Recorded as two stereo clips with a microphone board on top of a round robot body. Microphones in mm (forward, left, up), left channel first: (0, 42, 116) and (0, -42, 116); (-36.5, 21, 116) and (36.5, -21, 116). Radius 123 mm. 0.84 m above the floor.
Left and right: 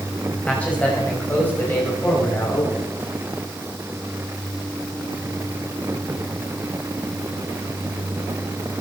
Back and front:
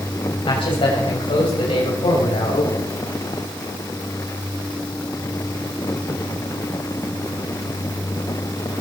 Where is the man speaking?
165° left, 6.5 m; by 2.9 s 150° left, 7 m.